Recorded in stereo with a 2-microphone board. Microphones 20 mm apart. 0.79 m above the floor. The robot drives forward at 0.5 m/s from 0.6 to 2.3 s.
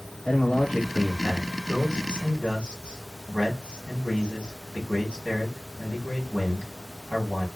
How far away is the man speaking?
About 1.8 m.